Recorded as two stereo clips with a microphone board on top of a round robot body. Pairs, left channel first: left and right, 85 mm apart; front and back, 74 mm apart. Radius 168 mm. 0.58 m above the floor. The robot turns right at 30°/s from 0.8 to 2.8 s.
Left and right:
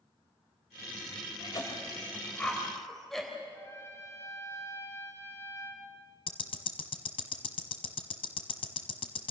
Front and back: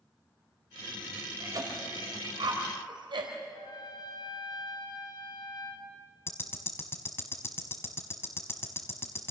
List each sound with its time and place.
1.4 s a cough: 135° left, 3 m; by 3.3 s 175° left, 3 m
3.5 s a trumpet: 30° left, 4 m
6.3 s ticking: 60° left, 1.0 m